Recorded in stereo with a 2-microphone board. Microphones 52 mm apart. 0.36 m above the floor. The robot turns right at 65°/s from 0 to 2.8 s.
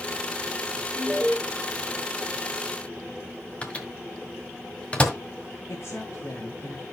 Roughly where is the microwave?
Left.